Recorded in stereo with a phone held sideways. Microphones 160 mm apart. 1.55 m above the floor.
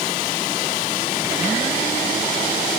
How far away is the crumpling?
No crumpling in this recording.